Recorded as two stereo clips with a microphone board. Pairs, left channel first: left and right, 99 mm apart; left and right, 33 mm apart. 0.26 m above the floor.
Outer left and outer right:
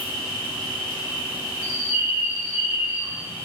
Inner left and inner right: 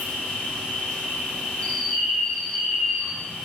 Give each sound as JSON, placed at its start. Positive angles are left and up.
{"t": 0.0, "sound": "an insect", "side_deg": 65, "distance_m": 1.1}
{"t": 1.6, "sound": "a bird", "side_deg": 35, "distance_m": 1.0}